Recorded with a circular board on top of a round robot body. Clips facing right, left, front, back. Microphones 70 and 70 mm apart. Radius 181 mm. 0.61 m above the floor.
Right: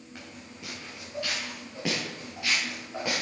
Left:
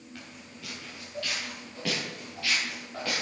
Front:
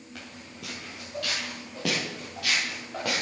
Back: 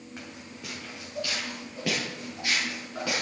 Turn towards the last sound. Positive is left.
turn(degrees=-15)